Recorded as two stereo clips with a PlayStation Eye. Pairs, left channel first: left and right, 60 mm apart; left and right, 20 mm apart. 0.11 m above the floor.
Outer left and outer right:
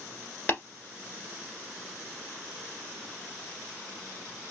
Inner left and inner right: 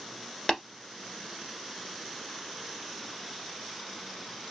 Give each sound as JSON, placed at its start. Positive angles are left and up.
{"t": 0.5, "sound": "tapping", "side_deg": 35, "distance_m": 1.6}